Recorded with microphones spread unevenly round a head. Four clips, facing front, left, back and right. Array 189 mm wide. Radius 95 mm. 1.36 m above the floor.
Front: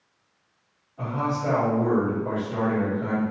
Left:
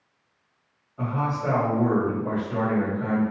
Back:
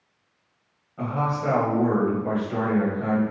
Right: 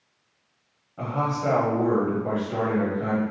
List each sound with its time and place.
1.0 s a man speaking: 120° right, 1.7 m